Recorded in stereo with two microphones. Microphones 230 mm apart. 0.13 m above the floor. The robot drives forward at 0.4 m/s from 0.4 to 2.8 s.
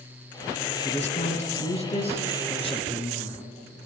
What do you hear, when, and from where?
0.8 s a man speaking: 30° left (ahead or behind), 1.2 m; by 3.4 s 25° left (ahead or behind), 1.5 m